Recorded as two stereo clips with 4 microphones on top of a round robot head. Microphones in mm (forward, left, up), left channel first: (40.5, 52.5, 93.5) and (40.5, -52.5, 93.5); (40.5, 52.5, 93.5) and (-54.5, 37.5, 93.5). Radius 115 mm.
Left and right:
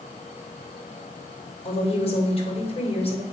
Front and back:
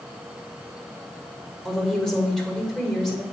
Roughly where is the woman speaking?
Left.